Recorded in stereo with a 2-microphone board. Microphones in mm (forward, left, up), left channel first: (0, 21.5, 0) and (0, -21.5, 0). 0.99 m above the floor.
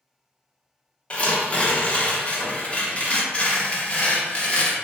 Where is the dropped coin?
I don't hear a dropped coin.